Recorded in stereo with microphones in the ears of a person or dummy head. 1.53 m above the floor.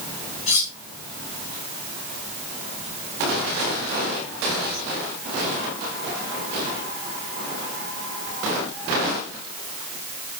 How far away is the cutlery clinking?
About 4.5 m.